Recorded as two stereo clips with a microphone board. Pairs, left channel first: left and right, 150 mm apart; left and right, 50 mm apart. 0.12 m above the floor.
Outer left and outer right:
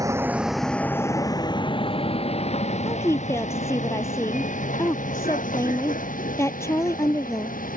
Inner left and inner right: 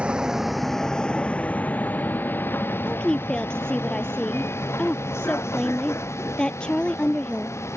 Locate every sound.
0.0 s a vehicle: 25° right (ahead or behind); by 7.8 s 65° left (ahead or behind)
2.9 s a woman speaking: 20° left (ahead or behind)